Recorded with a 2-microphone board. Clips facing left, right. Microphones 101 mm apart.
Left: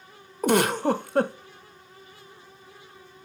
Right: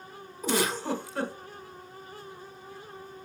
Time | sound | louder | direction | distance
0.4 | a giggle | left 7 dB | 60° left (ahead or behind) | 0.6 m